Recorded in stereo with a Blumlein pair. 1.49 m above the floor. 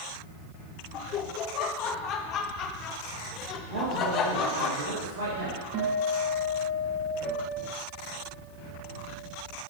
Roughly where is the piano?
Ahead left.